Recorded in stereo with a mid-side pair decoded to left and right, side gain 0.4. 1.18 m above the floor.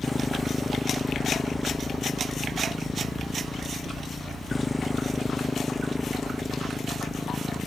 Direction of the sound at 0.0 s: 15° left.